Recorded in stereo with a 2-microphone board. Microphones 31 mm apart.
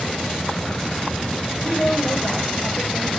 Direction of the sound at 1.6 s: 35° left (ahead or behind).